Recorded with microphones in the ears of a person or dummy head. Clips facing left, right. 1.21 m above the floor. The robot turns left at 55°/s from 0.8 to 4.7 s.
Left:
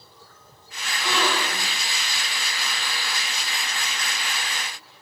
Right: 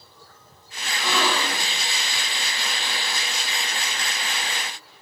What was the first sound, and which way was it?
A gasp, 120° right.